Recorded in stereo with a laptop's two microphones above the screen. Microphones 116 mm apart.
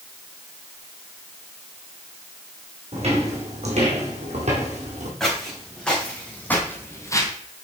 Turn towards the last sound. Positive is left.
turn(degrees=30)  # may be behind; listen again after turning